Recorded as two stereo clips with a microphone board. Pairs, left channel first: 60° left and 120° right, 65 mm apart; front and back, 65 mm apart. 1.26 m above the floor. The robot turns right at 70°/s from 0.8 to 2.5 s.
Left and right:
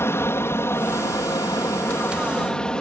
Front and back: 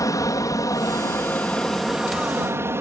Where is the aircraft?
15° left; by 2.8 s 135° left.